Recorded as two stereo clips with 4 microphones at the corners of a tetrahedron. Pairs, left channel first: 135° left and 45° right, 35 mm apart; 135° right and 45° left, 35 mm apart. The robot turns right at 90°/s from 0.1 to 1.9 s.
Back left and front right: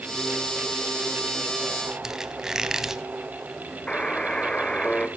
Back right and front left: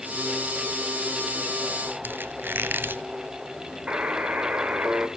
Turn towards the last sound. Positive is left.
turn(degrees=75)